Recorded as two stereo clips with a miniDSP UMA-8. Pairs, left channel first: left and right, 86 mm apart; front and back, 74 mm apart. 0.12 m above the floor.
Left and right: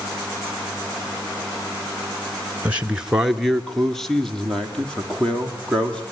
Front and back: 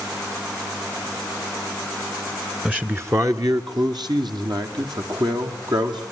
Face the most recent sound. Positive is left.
turn(degrees=170)